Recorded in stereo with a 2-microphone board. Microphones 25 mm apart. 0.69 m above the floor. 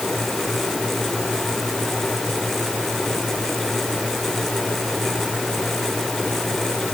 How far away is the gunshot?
No gunshot in this recording.